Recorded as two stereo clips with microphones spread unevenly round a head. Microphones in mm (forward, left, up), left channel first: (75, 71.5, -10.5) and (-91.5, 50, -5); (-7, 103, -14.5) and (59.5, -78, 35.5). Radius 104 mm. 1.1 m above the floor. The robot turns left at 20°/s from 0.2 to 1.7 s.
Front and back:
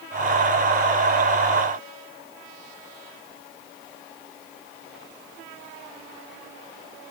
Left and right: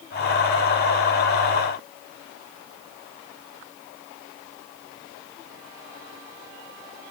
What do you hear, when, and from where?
Only background noise.